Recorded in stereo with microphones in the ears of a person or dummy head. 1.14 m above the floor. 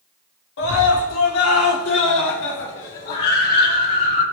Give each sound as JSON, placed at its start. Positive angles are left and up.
{"t": 0.6, "sound": "a scream", "side_deg": 65, "distance_m": 3.0}